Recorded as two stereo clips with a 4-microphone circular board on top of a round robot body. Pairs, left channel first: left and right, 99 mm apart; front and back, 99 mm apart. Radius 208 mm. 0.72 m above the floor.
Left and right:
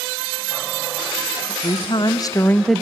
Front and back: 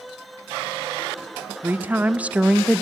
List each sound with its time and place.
1.6 s a woman speaking: 110° left, 1.0 m; by 2.8 s 85° right, 0.6 m